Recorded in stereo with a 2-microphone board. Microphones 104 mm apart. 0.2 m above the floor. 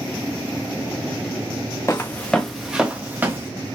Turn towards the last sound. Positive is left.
turn(degrees=-20)  # may be behind; listen again after turning